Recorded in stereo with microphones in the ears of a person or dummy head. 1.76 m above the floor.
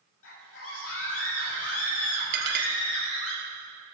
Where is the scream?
75° left (ahead or behind), 3 m.